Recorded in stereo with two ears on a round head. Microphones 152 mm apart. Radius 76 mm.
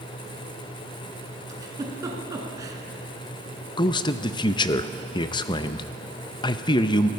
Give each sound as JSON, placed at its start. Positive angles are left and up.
{"t": 1.5, "sound": "a giggle", "side_deg": -20, "distance_m": 1.9}
{"t": 3.8, "sound": "a man speaking", "side_deg": 25, "distance_m": 0.5}